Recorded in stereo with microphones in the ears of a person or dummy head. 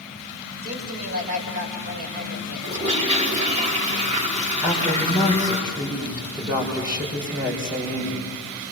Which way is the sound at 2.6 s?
30° right (ahead or behind).